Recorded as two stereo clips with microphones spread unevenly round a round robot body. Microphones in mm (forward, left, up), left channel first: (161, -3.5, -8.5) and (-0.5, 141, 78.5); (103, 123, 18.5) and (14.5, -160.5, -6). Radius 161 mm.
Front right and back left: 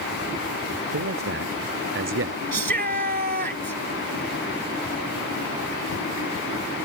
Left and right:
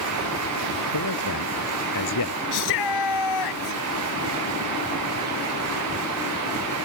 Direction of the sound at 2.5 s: 90° left.